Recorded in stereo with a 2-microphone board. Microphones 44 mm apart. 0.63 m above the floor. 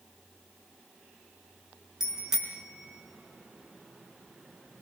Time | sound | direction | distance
2.0 | a bicycle bell | 10° right (ahead or behind) | 4.5 m